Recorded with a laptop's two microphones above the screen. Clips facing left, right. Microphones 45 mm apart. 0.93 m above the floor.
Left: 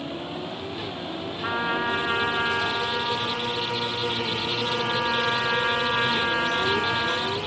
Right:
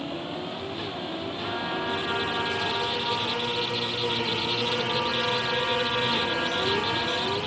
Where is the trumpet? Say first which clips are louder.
Left 6 dB; 45° left (ahead or behind), 1.6 m.